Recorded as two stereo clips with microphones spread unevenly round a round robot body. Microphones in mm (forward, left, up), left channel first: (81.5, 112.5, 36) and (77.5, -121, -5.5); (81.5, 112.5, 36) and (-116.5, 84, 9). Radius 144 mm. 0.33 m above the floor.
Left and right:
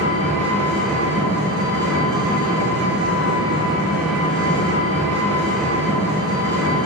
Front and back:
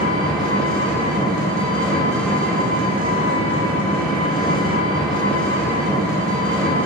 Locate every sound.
0.0 s an engine running: 75° left, 1.0 m